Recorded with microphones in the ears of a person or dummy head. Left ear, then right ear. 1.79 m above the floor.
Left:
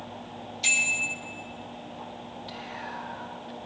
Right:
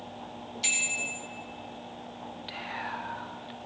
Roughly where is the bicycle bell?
Centre.